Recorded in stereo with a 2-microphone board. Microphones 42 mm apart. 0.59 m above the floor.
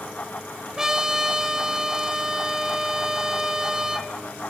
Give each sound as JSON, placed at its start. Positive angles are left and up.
{"t": 0.8, "sound": "a trumpet", "side_deg": -15, "distance_m": 1.0}